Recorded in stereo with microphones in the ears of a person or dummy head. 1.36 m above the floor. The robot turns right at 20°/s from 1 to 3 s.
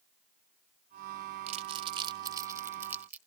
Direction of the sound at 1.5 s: 40° right (ahead or behind).